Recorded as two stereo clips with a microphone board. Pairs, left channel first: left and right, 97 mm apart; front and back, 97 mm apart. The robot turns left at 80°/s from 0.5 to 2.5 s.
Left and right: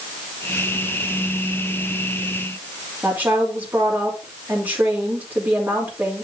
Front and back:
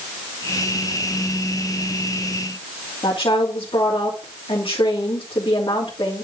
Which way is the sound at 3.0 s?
25° right.